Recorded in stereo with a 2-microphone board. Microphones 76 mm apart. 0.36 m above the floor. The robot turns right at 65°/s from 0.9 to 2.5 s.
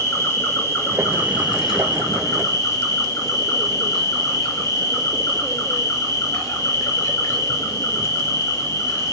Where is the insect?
30° left, 5 m; by 9.1 s 135° left, 5 m.